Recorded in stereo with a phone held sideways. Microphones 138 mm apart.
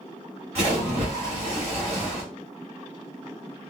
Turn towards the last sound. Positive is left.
turn(degrees=-50)  # may be behind; listen again after turning